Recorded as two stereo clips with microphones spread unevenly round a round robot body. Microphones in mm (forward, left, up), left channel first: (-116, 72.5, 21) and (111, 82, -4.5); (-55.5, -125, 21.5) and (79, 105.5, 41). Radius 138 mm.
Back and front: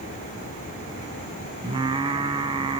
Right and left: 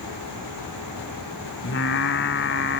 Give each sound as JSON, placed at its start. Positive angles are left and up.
{"t": 1.6, "sound": "singing", "azimuth_deg": -70, "distance_m": 0.8}